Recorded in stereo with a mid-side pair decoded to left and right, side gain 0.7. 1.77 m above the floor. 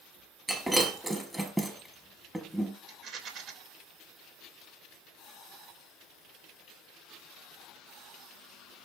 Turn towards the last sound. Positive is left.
turn(degrees=-50)